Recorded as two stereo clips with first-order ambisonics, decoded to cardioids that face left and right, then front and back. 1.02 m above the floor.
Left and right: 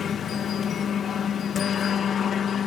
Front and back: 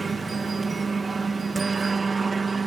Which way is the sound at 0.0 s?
120° left.